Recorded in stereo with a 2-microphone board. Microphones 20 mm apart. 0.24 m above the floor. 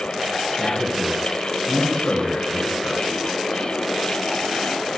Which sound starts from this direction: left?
A man speaking, at 0.6 s.